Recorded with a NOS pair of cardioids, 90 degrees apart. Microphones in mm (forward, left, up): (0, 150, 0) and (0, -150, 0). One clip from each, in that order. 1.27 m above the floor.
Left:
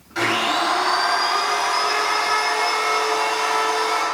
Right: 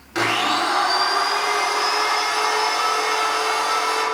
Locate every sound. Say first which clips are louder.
0.1 s a blender: even; 70° right, 1.3 m